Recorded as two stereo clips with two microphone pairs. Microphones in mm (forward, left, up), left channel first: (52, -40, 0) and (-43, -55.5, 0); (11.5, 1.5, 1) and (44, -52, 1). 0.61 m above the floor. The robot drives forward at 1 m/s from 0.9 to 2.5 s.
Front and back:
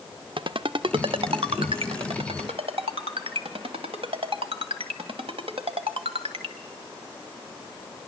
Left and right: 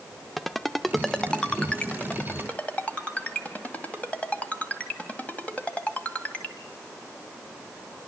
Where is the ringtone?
145° right, 0.8 m; by 6.6 s 170° right, 2.5 m.